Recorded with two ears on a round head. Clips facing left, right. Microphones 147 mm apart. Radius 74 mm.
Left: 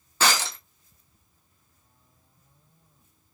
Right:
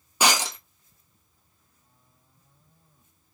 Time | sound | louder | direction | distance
0.2 | breaking glass | right 1 dB | 15° right (ahead or behind) | 0.8 m